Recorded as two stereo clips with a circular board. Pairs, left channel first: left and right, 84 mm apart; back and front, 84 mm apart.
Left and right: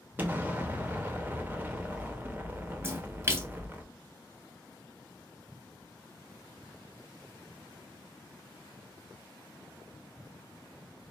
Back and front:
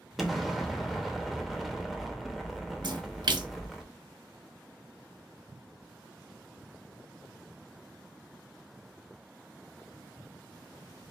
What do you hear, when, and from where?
0.2 s an explosion: 85° right, 0.8 m
2.8 s a splash: 30° right, 0.6 m